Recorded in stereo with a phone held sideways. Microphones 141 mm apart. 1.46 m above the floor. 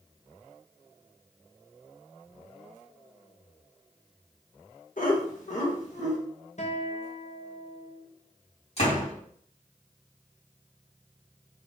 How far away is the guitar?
About 0.8 m.